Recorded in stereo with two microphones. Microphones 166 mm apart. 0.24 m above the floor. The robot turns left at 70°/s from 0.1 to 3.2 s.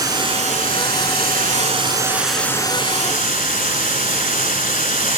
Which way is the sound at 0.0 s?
25° right.